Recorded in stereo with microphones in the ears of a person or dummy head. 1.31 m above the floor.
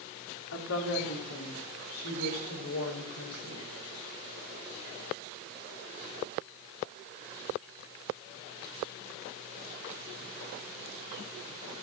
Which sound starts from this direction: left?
A woman speaking, at 0.5 s.